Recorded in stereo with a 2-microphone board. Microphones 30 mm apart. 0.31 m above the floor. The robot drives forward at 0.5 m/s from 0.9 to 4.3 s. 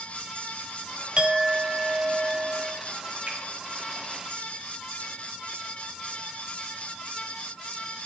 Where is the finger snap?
50° right (ahead or behind), 4.5 m.